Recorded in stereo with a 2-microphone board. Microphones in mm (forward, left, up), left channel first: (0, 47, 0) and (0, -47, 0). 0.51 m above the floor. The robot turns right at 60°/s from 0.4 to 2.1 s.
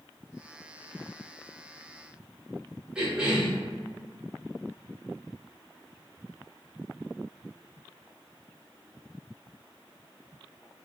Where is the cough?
10° right (ahead or behind), 1.0 m.